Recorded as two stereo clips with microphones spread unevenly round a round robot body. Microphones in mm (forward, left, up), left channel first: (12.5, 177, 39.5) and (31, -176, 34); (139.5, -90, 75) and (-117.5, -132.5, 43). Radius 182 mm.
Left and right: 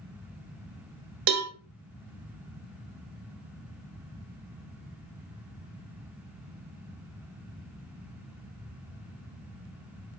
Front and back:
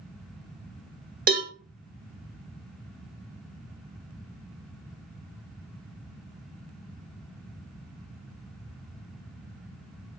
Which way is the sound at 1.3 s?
115° right.